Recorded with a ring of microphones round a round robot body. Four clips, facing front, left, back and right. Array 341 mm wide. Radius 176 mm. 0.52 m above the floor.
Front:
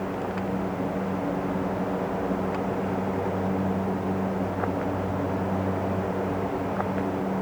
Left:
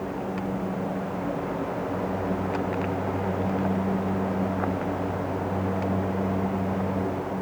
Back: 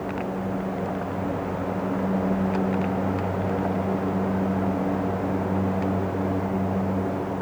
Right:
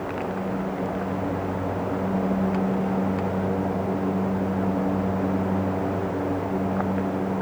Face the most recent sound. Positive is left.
No sound to turn to.